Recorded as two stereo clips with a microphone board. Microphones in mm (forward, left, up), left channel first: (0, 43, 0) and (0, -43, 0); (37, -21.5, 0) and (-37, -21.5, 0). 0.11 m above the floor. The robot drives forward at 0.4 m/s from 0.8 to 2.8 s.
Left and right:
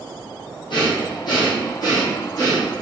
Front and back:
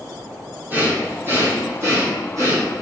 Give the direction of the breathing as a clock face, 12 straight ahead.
8 o'clock.